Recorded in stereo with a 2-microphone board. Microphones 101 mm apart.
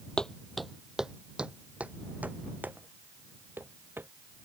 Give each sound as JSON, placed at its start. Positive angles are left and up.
{"t": 0.2, "sound": "footsteps", "side_deg": 10}